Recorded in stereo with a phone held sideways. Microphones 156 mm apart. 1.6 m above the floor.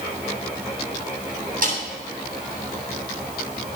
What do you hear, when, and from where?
1.6 s a snare drum: 60° right (ahead or behind), 8 m